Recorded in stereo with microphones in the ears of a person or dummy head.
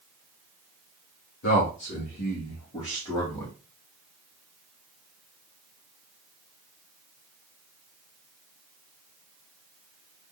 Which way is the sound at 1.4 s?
65° left (ahead or behind).